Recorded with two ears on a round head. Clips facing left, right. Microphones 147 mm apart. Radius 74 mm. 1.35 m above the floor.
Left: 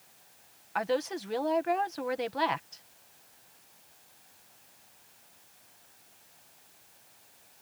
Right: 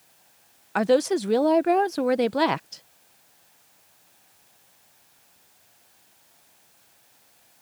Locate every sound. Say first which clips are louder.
0.8 s a woman speaking: right 10 dB; 55° right (ahead or behind)